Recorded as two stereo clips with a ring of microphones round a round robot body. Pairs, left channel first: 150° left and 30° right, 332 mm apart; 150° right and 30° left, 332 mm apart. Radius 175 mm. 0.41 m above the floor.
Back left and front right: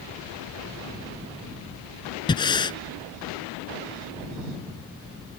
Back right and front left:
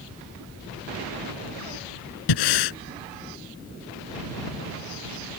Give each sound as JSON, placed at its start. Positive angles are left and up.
{"t": 2.3, "sound": "breathing", "azimuth_deg": -135}